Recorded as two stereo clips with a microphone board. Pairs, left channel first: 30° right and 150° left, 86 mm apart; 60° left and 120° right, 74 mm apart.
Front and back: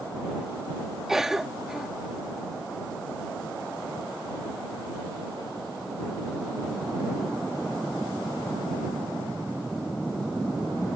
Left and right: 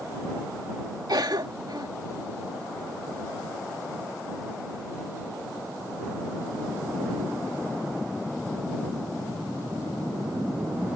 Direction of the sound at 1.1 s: 125° right.